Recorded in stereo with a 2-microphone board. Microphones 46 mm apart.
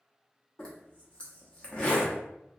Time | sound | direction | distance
0.6 | a zipper | 25° left (ahead or behind) | 0.8 m